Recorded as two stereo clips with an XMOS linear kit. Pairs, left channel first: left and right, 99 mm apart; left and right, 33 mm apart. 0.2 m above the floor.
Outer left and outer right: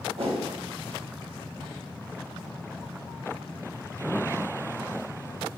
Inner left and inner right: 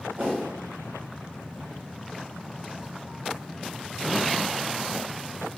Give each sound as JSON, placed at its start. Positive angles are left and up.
{"t": 0.2, "sound": "a whoosh", "side_deg": -75, "distance_m": 1.8}